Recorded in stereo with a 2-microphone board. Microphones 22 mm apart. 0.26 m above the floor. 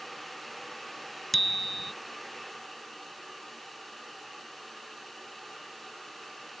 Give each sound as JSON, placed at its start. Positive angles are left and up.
{"t": 1.3, "sound": "a bicycle bell", "side_deg": 0}